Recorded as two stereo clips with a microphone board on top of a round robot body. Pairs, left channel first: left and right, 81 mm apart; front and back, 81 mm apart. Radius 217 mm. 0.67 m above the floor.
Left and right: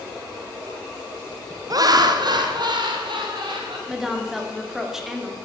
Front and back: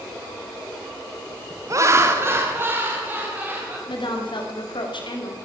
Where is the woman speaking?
5° right, 3 m.